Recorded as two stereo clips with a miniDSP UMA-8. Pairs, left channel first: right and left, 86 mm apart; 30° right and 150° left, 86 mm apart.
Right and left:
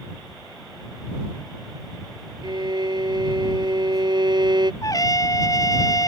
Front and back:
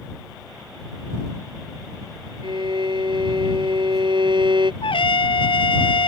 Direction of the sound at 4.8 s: 45° right.